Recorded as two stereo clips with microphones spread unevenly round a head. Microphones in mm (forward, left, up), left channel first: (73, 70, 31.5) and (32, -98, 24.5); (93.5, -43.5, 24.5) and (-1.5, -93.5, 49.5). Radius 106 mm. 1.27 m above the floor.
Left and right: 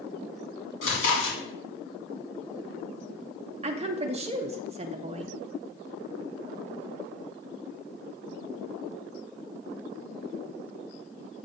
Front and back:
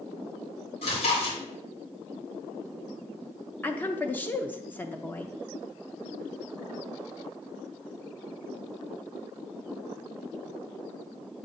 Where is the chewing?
65° left, 2.5 m.